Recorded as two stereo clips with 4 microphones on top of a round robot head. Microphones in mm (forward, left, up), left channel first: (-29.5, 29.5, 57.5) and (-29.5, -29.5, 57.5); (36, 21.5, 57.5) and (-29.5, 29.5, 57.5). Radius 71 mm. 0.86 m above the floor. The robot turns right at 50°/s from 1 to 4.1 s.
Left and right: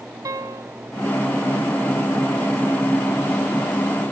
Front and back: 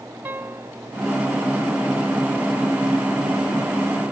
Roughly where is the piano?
Behind right.